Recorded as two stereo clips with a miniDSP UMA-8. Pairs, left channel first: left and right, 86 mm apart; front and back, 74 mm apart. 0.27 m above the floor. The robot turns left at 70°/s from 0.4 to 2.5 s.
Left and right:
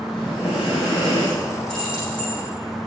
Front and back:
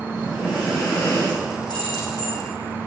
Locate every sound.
0.1 s breathing: 110° left, 7.5 m; by 1.6 s 25° left, 7.5 m
1.7 s keys jangling: 5° left, 8 m; by 2.3 s 40° right, 8 m